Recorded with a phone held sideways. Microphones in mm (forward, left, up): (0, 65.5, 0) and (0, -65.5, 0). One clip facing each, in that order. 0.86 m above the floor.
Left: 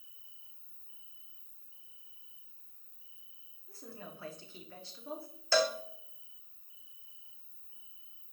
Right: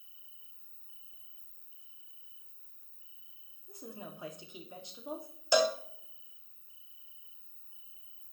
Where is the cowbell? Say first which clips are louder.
Right 2 dB; 15° right (ahead or behind), 0.5 m.